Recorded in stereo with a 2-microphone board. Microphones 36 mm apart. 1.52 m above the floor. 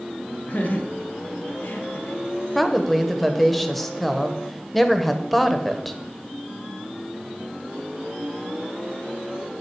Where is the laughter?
45° left (ahead or behind), 1.2 m; by 2.2 s 55° left (ahead or behind), 1.5 m.